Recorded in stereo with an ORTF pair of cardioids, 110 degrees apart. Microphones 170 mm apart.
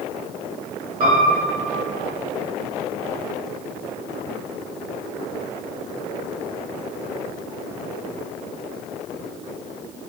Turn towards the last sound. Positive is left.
turn(degrees=-55)